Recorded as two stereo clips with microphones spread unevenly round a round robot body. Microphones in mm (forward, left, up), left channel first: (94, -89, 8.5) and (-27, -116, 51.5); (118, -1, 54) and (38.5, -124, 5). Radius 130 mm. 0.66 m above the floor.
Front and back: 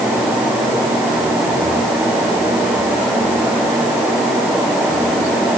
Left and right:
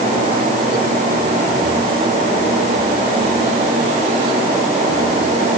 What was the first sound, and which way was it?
Only background noise.